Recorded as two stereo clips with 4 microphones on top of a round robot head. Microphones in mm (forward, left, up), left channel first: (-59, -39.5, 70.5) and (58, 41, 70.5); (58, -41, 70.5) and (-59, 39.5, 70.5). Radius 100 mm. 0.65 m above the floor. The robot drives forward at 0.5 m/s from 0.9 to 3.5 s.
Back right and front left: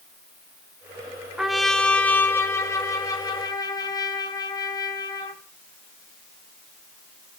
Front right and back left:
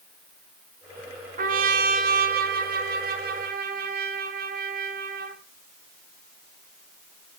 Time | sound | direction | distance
1.4 | a trumpet | 120° left | 1.0 m